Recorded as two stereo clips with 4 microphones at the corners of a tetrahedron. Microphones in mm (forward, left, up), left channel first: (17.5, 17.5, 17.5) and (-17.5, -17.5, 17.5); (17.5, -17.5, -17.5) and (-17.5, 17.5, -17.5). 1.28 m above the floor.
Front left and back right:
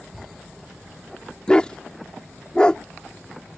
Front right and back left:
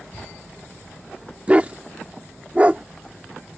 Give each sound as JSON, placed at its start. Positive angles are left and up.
{"t": 1.5, "sound": "a dog barking", "azimuth_deg": 100}